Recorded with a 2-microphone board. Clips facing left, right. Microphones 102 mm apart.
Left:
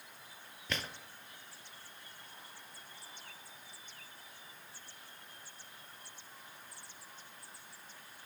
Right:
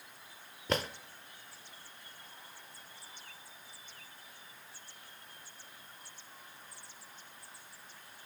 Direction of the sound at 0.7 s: 40° right (ahead or behind).